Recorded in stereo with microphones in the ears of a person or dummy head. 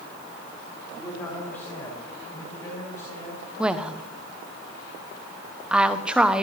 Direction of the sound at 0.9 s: 10° left (ahead or behind).